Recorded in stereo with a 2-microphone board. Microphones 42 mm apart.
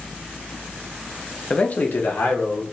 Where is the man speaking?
20° left (ahead or behind), 0.6 m; by 2.6 s 75° left (ahead or behind), 1.4 m.